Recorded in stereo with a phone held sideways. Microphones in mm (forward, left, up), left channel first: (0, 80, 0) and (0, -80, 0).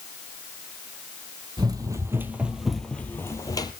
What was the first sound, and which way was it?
Running footsteps, 25° right (ahead or behind).